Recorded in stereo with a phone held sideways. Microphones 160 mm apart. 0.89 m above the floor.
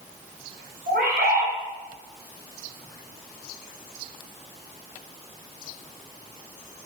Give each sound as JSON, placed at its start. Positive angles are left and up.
{"t": 0.9, "sound": "a bird", "side_deg": -80, "distance_m": 4.5}